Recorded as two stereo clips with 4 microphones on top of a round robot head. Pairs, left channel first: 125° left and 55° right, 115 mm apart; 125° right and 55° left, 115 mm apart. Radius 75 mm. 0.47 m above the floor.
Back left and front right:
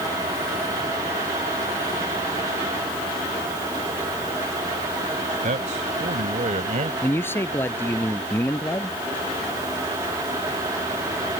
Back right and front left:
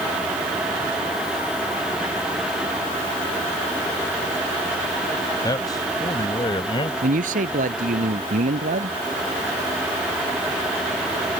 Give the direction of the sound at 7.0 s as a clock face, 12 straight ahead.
10 o'clock.